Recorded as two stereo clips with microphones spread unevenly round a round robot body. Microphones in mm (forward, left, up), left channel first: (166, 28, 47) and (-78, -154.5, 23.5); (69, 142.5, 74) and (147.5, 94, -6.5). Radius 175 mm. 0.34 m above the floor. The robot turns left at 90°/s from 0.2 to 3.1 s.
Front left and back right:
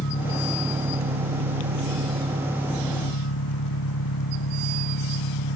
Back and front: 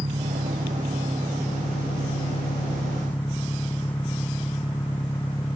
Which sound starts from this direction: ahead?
An engine running, at 0.0 s.